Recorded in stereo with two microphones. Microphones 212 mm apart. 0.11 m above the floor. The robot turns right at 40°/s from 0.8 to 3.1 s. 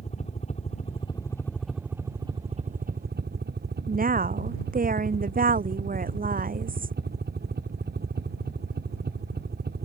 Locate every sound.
0.0 s a helicopter: 145° left; by 9.9 s 125° right
3.9 s a woman speaking: 40° right (ahead or behind)